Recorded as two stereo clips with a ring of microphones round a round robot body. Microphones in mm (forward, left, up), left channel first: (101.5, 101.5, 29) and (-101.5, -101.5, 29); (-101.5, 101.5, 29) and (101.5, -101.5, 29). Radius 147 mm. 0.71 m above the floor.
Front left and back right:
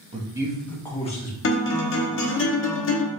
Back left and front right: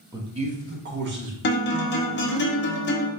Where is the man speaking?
105° right, 0.8 m; by 1.3 s 10° right, 1.0 m.